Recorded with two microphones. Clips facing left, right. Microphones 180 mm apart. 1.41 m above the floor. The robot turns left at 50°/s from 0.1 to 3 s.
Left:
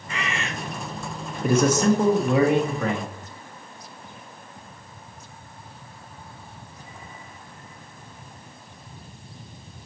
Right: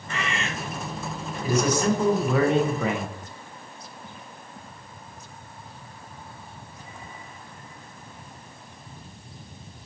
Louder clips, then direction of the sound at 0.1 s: Even; 15° left (ahead or behind).